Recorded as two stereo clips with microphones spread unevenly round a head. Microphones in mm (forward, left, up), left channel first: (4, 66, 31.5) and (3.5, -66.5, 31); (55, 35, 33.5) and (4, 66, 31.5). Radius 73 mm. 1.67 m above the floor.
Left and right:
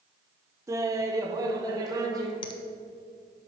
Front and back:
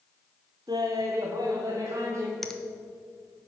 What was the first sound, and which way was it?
Laughter, 160° right.